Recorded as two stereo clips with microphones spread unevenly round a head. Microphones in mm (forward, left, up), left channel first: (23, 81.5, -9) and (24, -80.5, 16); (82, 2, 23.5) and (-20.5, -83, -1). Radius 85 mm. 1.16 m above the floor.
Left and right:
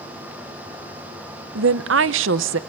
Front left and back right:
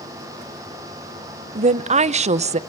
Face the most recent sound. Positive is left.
turn(degrees=-110)